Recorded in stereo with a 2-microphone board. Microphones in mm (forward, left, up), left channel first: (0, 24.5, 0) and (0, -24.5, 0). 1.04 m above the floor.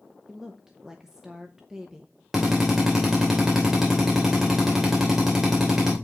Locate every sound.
0.3 s a woman speaking: 10° right (ahead or behind), 1.0 m
2.3 s a drill: 5° right (ahead or behind), 2.5 m